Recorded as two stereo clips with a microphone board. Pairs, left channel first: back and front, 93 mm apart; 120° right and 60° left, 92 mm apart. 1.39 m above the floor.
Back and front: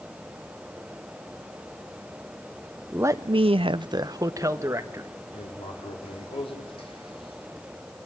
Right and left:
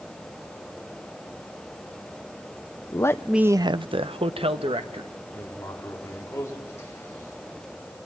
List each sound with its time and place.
2.9 s a man speaking: 65° right, 0.7 m; by 5.1 s 60° left, 2 m
5.3 s writing: straight behind, 4.5 m